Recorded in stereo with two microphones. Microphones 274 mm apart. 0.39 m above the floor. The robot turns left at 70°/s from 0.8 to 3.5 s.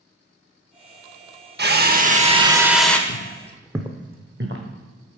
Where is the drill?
95° right, 0.6 m; by 3.0 s 170° left, 0.6 m.